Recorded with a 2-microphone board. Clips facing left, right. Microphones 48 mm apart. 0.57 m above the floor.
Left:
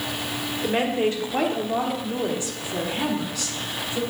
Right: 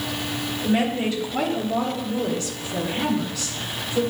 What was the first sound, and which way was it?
A woman speaking, 40° left (ahead or behind).